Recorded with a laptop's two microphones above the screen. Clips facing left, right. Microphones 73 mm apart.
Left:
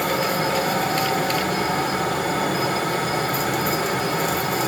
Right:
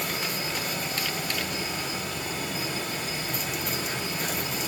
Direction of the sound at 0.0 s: 70° left (ahead or behind).